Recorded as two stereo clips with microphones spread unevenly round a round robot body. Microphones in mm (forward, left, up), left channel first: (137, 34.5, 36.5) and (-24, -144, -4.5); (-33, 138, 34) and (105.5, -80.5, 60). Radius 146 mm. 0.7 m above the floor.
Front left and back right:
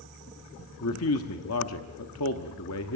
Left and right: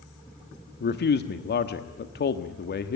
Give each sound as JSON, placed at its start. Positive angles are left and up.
{"t": 0.8, "sound": "a man speaking", "azimuth_deg": 80, "distance_m": 1.2}